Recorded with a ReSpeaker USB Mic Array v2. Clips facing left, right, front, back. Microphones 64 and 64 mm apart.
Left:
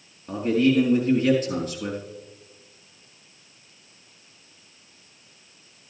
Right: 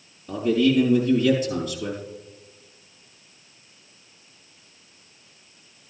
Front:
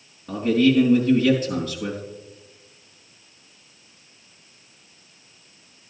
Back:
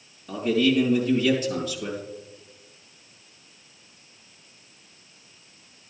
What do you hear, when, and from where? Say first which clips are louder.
0.3 s a man speaking: even, front 3 dB; 55° left, 4 m